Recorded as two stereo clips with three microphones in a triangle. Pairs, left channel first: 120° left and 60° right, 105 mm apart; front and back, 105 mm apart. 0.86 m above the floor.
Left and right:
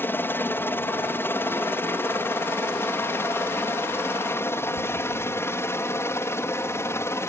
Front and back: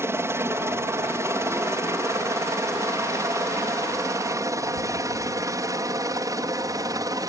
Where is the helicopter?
160° left; by 7.3 s 165° left.